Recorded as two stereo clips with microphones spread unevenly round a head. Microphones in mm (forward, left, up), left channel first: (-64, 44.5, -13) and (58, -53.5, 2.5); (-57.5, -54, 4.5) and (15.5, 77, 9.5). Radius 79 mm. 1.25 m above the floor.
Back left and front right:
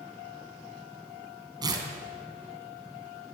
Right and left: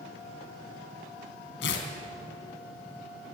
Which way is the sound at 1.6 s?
100° right.